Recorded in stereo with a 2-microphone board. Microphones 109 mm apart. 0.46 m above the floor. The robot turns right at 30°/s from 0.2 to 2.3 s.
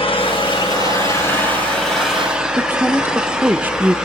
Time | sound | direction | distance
0.0 | an engine running | 125° left | 2.5 m
2.6 | a woman speaking | 20° right (ahead or behind) | 0.7 m